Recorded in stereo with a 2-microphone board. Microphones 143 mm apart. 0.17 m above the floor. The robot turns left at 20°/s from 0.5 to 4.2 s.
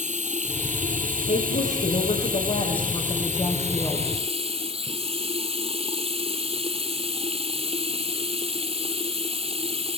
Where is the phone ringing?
No phone ringing in this recording.